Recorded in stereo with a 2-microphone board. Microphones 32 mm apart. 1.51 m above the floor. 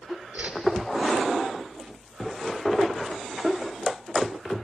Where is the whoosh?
65° right (ahead or behind), 1.2 m.